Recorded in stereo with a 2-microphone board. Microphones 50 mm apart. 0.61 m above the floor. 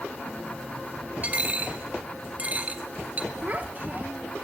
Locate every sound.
1.2 s a dropped coin: 35° right (ahead or behind), 0.9 m
3.4 s a child speaking: 40° right (ahead or behind), 1.0 m